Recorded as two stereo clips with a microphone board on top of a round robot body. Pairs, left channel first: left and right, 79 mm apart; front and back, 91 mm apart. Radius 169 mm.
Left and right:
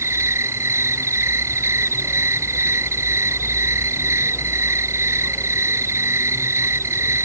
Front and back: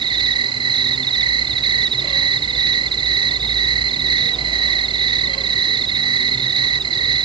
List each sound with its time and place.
0.0 s an insect: 150° right